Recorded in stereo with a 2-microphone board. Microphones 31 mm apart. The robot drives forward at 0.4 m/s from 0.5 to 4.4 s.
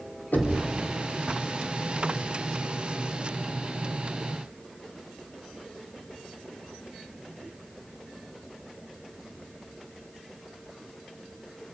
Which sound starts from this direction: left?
Knocking, at 0.3 s.